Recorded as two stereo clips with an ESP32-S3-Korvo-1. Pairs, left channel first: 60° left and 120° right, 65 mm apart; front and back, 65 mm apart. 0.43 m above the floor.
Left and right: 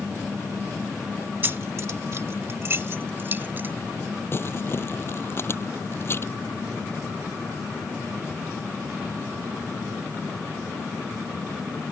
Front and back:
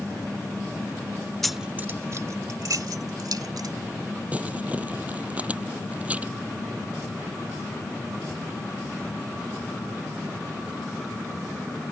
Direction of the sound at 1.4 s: 85° right.